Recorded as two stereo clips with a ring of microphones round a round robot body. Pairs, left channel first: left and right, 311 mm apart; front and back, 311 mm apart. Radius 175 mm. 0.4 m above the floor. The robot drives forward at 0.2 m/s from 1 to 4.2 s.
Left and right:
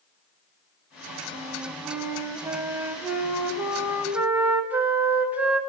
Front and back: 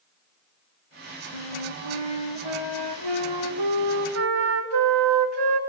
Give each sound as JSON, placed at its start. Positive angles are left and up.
{"t": 1.3, "sound": "a flute", "azimuth_deg": -170, "distance_m": 0.8}